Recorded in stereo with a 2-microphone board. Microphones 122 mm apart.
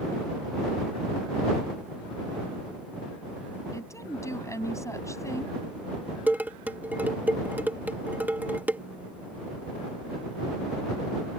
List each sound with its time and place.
3.7 s a woman speaking: 25° left (ahead or behind)
6.3 s dishes clattering: 15° right (ahead or behind)